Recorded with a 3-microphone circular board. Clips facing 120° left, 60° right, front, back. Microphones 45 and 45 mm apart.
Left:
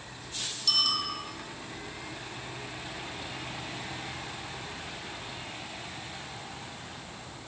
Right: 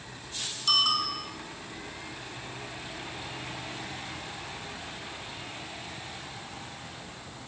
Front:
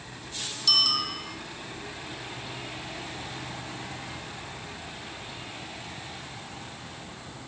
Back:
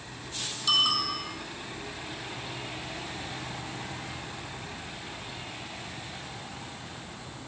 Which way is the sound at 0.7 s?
105° right.